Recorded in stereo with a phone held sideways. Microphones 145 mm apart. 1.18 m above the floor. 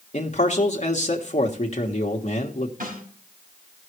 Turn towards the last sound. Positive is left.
turn(degrees=-80)